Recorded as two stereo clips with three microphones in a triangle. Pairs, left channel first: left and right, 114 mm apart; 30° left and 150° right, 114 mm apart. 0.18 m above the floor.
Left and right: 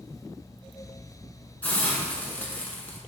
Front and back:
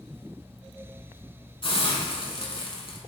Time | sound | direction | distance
1.6 | a hiss | 15° left | 1.1 m